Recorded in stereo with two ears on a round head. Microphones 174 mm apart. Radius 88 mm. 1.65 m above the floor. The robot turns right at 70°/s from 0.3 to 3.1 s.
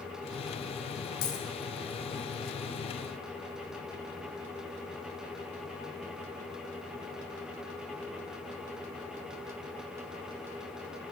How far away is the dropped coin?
About 5 m.